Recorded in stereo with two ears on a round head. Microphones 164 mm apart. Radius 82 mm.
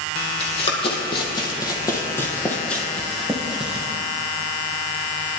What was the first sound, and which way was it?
Running footsteps, 35° left (ahead or behind).